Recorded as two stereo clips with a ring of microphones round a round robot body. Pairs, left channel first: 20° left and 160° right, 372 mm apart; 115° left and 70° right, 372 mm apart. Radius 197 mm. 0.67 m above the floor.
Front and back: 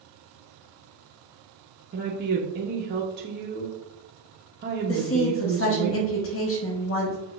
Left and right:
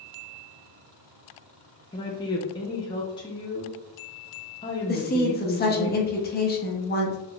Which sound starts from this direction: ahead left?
A woman speaking, at 4.9 s.